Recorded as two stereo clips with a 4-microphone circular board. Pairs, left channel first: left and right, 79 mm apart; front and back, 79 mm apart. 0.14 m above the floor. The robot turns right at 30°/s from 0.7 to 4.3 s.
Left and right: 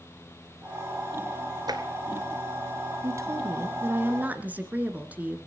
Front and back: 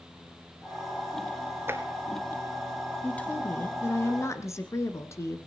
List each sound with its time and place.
1.7 s tapping: 120° right, 1.2 m; by 1.8 s 115° right, 1.2 m
3.0 s a woman speaking: 70° right, 2.0 m; by 5.4 s 30° right, 2.0 m